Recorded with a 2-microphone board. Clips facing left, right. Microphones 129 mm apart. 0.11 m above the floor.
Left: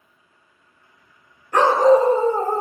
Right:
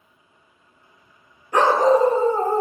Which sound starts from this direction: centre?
A dog barking, at 1.5 s.